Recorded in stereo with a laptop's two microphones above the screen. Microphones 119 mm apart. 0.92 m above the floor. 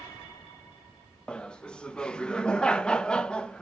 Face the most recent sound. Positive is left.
turn(degrees=10)  # may be behind; listen again after turning